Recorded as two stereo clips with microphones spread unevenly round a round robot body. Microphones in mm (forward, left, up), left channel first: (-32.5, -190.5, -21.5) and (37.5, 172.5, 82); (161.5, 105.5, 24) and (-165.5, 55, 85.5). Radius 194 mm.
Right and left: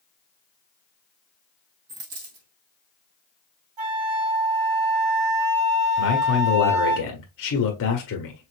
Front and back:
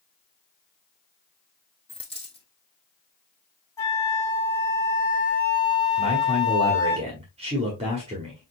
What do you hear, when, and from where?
1.9 s a dropped coin: 85° left, 2.5 m
3.8 s a flute: 85° left, 3.5 m
6.0 s a man speaking: 95° right, 1.1 m